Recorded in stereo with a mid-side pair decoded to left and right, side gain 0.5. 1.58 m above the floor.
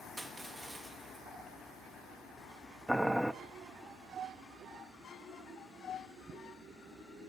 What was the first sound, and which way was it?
Crushing, 15° right.